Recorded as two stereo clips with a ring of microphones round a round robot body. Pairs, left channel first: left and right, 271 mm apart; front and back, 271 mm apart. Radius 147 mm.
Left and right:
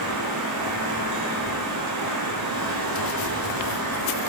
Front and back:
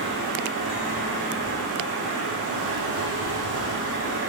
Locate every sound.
0.0 s running water: 125° right, 7 m